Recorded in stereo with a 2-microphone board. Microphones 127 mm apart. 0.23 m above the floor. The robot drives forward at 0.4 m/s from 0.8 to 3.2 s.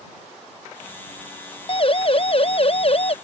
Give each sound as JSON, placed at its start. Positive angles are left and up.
{"t": 1.7, "sound": "a siren", "side_deg": 45}